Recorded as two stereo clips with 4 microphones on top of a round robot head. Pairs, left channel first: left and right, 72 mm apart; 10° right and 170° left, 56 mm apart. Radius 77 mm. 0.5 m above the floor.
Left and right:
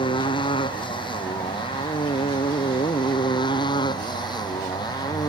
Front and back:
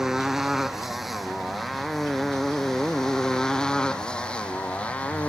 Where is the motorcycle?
85° left; by 5.3 s 55° left.